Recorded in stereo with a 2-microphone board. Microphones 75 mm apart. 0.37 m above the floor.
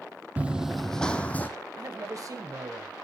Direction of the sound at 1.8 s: 50° right (ahead or behind).